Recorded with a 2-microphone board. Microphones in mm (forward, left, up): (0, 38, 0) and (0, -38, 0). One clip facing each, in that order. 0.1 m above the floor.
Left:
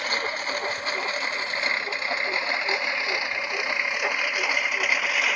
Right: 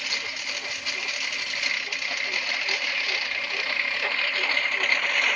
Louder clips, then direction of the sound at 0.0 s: Left 6 dB; 40° left (ahead or behind).